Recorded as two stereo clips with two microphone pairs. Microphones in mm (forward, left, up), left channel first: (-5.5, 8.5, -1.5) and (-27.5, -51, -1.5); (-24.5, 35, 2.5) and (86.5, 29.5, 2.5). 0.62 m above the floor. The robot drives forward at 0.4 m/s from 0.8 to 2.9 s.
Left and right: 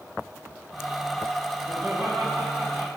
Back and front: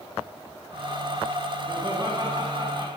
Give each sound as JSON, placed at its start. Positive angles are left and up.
{"t": 1.7, "sound": "laughter", "azimuth_deg": -55, "distance_m": 6.5}